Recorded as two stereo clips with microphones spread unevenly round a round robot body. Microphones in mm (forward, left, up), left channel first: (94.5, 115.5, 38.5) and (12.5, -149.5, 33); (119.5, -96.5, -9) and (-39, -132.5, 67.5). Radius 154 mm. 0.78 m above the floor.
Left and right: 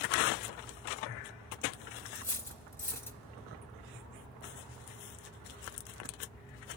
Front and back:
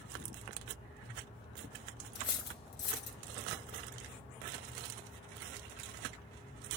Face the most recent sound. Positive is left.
turn(degrees=-10)